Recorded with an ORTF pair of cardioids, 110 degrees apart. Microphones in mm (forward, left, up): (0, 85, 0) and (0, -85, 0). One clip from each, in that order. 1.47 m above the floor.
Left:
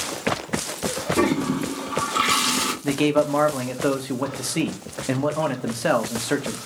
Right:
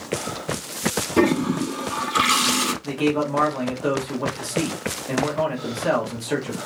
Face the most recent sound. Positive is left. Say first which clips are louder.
# left 3 dB
turn(degrees=40)